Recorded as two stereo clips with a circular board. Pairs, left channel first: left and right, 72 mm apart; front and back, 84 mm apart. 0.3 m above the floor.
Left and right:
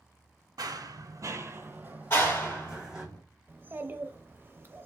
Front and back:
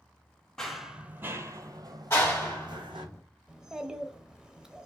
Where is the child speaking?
105° right, 0.6 m.